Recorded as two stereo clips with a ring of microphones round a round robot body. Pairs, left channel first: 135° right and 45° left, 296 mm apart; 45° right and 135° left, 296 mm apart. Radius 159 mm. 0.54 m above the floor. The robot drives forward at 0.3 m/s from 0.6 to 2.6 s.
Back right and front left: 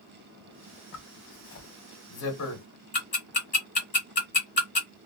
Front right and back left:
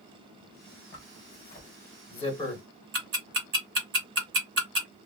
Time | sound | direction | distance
0.9 | a zipper | 90° right | 1.2 m
2.9 | ticking | 165° left | 1.7 m